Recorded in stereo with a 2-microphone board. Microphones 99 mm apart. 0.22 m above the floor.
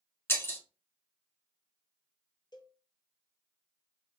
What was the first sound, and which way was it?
Breaking glass, 25° left (ahead or behind).